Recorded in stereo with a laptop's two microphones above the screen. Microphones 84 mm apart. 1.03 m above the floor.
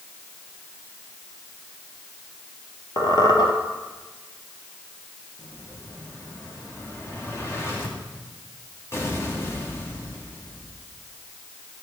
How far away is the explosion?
About 2.5 m.